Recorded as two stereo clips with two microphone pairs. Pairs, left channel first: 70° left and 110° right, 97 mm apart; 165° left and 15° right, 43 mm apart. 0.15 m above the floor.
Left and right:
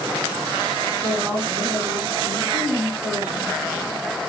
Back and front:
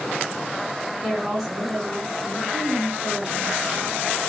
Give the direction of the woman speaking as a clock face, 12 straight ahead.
3 o'clock.